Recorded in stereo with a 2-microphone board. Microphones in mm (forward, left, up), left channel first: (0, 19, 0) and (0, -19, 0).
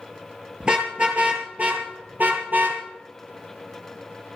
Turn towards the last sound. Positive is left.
turn(degrees=-50)  # may be behind; listen again after turning